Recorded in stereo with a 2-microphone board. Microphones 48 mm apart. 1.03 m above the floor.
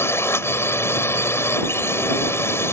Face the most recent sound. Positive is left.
turn(degrees=60)  # may be behind; listen again after turning